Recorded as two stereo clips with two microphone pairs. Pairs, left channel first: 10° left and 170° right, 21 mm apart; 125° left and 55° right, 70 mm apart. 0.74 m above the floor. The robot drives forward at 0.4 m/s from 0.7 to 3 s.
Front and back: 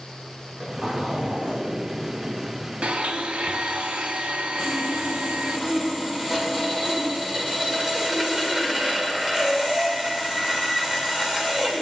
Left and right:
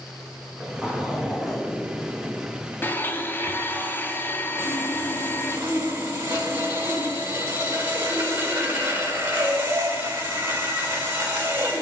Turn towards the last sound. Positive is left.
turn(degrees=-110)